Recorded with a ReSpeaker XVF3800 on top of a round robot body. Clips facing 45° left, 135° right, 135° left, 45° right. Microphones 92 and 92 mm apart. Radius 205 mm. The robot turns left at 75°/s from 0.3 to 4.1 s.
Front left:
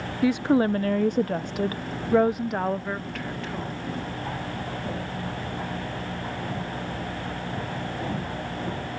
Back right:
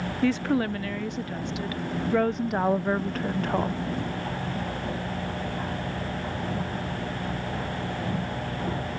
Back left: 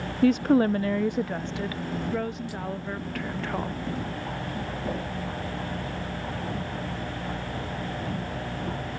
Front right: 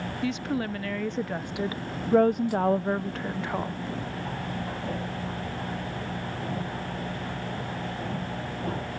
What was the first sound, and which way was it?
A woman speaking, 120° left.